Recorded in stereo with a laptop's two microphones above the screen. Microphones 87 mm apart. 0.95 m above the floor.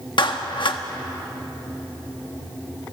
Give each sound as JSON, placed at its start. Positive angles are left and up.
{"t": 0.2, "sound": "a clap", "side_deg": 65, "distance_m": 1.4}